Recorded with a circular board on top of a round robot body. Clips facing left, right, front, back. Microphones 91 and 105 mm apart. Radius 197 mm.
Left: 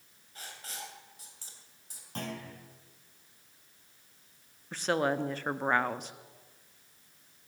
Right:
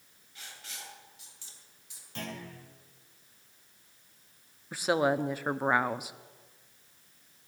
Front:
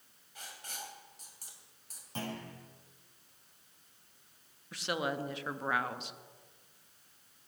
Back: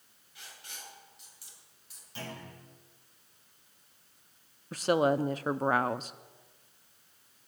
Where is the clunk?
45° left, 7 m.